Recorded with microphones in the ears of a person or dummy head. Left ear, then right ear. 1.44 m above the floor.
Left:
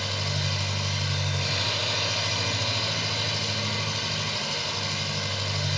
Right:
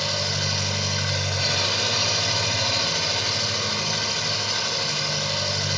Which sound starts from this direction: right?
An engine running, at 0.0 s.